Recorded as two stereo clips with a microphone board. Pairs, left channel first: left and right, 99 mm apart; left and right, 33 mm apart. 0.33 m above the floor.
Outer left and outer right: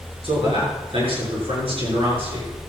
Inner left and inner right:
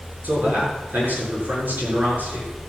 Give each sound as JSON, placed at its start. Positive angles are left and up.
{"t": 0.2, "sound": "a man speaking", "side_deg": -70, "distance_m": 6.5}